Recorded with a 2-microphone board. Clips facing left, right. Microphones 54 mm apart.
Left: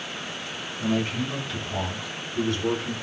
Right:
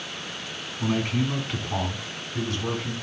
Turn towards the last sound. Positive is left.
turn(degrees=-65)  # may be behind; listen again after turning